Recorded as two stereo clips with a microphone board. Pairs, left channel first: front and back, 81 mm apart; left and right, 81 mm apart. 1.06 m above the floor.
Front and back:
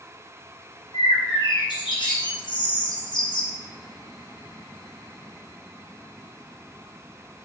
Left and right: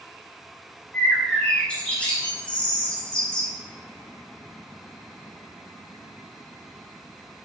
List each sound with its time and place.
0.9 s a bird: 10° left, 3.5 m